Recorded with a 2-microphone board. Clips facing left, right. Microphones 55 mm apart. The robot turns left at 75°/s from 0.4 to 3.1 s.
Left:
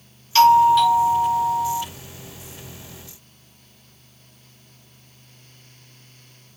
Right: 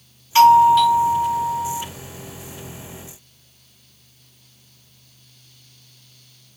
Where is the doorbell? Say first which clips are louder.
Right 2 dB; 150° right, 1.2 m; by 1.8 s 100° left, 1.2 m.